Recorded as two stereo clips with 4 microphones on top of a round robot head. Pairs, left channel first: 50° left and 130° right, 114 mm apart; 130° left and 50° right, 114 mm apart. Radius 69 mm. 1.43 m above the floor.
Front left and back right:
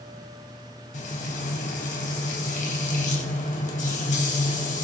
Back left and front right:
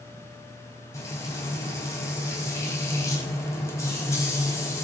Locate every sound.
0.9 s frying: 65° left, 5 m